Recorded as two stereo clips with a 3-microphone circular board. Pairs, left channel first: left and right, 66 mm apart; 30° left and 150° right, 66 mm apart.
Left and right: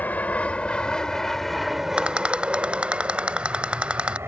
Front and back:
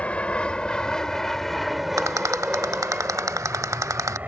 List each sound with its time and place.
0.0 s an aircraft: 75° left; by 4.3 s 100° right
2.0 s a rattle: 160° right